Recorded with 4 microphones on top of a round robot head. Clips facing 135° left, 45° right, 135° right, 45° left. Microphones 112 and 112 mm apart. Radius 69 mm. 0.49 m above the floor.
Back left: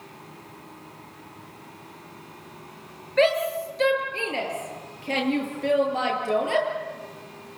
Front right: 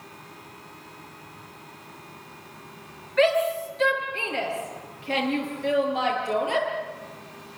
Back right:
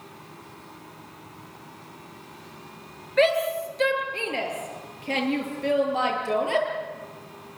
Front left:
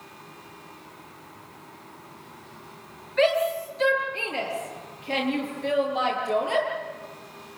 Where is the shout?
175° right, 9.5 m; by 6.7 s straight behind, 13.5 m.